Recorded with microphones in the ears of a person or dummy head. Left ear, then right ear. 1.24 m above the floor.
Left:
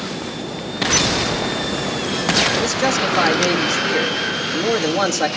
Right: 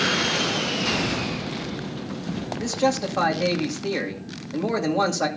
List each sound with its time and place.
2.6 s a man speaking: 75° left (ahead or behind), 2.5 m